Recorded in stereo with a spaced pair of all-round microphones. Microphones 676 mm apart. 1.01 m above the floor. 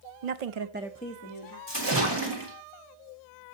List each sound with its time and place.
0.2 s a woman speaking: 80° right, 0.8 m; by 1.6 s 35° left (ahead or behind), 1.5 m
1.7 s a splash: 40° right (ahead or behind), 2.0 m